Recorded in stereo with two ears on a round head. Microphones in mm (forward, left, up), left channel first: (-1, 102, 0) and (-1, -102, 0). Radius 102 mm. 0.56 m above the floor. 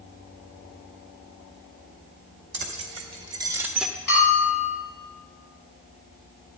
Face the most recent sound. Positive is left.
turn(degrees=45)  # may be behind; listen again after turning